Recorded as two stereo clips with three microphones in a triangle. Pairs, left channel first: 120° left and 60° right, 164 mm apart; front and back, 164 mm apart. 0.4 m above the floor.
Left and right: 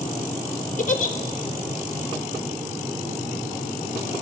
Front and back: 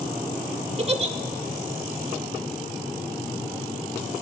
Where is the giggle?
140° left, 0.7 m.